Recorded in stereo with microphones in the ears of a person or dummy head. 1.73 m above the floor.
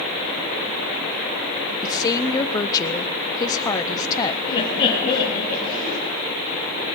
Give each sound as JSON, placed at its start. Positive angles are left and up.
{"t": 1.8, "sound": "a woman speaking", "side_deg": 20, "distance_m": 0.7}
{"t": 4.5, "sound": "laughter", "side_deg": 30, "distance_m": 3.0}